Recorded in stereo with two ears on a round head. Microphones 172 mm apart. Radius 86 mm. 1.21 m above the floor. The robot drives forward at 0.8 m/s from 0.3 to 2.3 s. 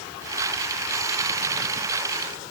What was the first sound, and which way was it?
Only background noise.